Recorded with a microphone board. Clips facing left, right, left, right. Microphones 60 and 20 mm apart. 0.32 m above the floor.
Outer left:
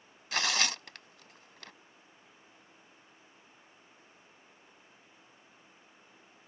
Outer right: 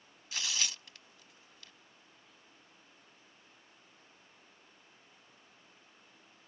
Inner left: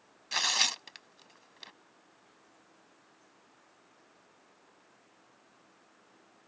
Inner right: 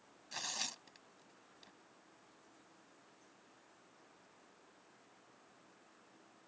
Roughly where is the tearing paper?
Left.